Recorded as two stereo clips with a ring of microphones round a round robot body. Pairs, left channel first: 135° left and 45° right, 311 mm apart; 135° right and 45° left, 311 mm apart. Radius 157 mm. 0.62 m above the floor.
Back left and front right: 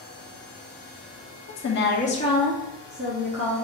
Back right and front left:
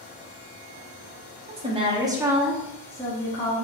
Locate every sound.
1.5 s a woman speaking: 110° left, 1.2 m; by 3.6 s 70° right, 1.3 m